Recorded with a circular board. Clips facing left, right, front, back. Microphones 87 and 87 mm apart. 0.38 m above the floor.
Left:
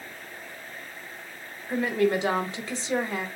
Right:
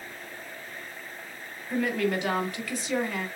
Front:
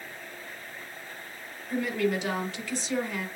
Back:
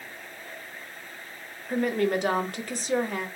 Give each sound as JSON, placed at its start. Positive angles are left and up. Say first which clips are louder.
{"t": 1.7, "sound": "a woman speaking", "louder": "left 3 dB, back 3 dB", "azimuth_deg": 150, "distance_m": 1.4}